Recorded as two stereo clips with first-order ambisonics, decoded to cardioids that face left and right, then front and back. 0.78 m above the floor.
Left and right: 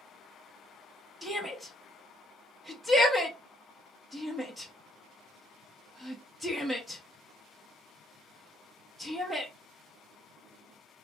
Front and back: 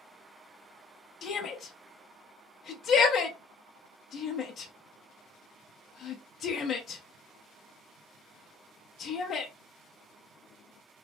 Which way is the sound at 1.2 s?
5° right.